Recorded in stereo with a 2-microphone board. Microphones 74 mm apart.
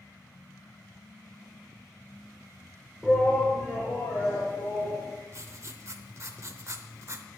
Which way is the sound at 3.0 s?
5° right (ahead or behind).